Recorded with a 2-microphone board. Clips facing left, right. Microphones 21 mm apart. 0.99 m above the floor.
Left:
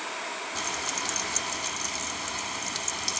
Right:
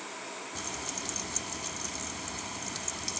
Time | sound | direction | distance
0.6 | frying | 35° left (ahead or behind) | ?